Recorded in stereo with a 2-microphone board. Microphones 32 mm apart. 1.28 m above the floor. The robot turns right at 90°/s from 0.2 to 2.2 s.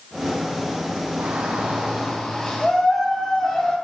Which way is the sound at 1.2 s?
85° right.